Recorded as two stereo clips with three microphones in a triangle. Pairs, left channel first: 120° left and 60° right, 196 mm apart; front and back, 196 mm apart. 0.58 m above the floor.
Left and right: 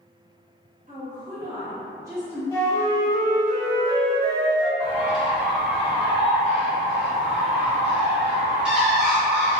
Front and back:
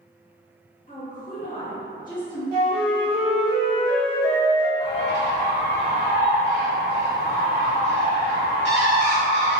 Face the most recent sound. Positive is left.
turn(degrees=25)